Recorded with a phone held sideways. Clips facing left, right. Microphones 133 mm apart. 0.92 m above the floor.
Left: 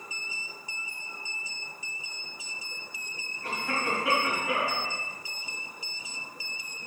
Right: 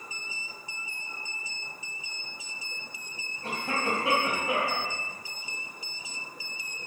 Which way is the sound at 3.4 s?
30° right (ahead or behind).